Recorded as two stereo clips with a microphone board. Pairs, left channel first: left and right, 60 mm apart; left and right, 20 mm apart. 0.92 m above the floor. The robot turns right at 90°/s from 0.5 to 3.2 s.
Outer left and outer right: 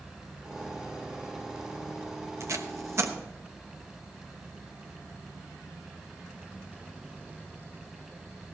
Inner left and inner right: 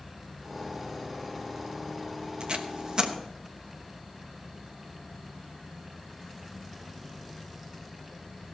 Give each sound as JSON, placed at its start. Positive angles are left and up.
{"t": 2.4, "sound": "tape being pulled", "side_deg": -50, "distance_m": 1.0}